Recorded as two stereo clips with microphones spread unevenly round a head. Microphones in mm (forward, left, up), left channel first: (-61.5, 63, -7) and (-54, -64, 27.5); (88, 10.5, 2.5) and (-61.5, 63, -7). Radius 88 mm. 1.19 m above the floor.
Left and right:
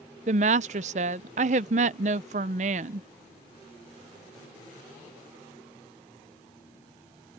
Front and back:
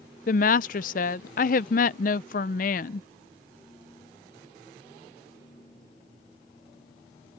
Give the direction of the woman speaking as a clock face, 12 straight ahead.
2 o'clock.